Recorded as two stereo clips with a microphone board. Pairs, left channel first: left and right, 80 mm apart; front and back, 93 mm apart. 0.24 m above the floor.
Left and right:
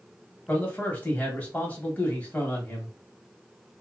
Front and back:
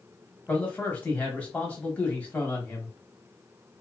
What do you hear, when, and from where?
0.5 s a man speaking: 50° left, 1.2 m